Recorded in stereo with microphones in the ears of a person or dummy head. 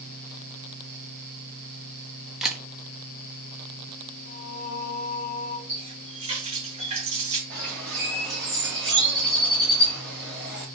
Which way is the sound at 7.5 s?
5° left (ahead or behind).